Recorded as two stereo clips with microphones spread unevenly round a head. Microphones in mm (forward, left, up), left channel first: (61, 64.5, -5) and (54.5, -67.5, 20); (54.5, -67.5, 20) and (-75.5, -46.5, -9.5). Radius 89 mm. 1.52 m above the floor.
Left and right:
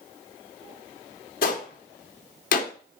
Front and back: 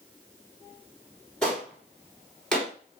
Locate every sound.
1.4 s a gunshot: 75° left, 2.5 m